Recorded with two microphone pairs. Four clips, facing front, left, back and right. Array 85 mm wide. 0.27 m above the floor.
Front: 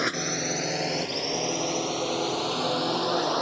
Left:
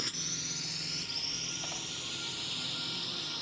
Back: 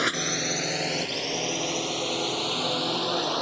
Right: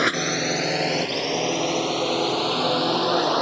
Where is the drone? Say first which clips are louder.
Right 21 dB, even; 90° right; by 3.4 s 80° right.